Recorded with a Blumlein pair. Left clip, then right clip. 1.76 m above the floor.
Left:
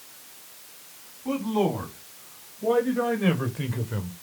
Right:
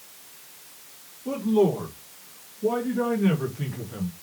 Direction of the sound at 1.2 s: 60° left.